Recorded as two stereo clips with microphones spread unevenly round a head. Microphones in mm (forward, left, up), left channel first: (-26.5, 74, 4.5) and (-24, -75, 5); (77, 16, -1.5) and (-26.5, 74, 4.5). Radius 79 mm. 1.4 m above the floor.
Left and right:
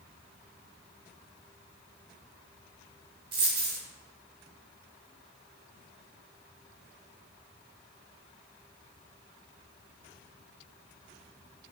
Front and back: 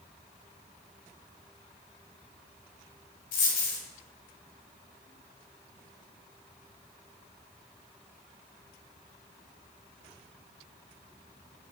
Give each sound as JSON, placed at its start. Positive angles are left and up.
{"t": 3.3, "sound": "a dropped coin", "azimuth_deg": -30, "distance_m": 1.9}